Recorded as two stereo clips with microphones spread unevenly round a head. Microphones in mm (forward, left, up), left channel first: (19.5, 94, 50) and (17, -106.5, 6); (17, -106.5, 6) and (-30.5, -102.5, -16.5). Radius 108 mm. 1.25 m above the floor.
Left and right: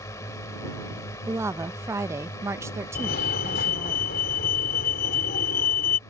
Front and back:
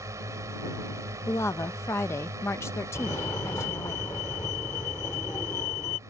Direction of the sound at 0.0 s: 165° left.